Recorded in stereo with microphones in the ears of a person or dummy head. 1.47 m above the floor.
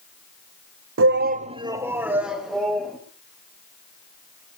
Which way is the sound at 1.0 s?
60° right (ahead or behind).